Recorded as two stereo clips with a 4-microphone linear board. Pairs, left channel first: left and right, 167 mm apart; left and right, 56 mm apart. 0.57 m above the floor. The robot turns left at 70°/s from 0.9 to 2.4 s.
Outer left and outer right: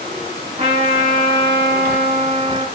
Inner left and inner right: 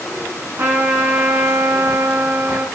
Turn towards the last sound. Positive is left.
turn(degrees=-145)